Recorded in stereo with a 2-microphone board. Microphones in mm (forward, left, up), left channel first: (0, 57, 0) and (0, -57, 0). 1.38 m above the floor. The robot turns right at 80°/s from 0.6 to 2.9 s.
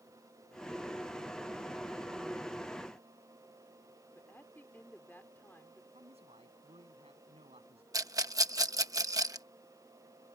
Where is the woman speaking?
20° left (ahead or behind).